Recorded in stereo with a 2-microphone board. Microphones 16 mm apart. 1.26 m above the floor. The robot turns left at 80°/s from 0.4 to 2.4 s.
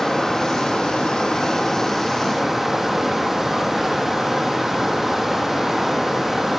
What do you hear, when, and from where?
0.0 s running water: 140° left, 6.5 m; by 6.6 s 20° right, 6.5 m